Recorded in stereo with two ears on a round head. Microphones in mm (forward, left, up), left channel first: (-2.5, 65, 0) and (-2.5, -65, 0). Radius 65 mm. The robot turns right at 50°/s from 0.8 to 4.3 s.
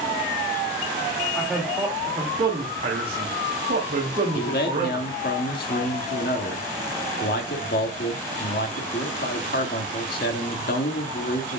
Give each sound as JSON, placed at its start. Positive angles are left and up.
{"t": 1.4, "sound": "a man speaking", "side_deg": 10, "distance_m": 2.0}
{"t": 4.3, "sound": "a man speaking", "side_deg": 70, "distance_m": 1.7}